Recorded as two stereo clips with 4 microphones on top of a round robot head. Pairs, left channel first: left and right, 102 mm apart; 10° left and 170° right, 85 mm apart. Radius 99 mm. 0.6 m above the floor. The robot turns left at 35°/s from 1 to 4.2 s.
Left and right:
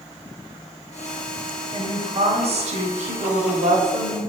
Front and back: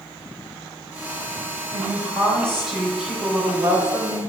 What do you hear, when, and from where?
1.7 s a woman speaking: 45° right, 3.5 m; by 4.2 s 130° right, 3.5 m